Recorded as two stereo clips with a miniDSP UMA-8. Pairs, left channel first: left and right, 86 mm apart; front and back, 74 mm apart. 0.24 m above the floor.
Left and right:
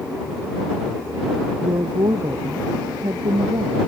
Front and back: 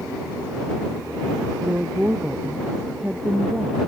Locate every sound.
1.6 s a woman speaking: 110° right